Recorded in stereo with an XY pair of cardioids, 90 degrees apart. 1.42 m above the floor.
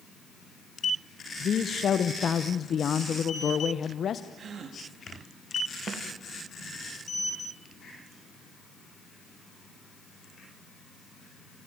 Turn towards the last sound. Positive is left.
turn(degrees=-65)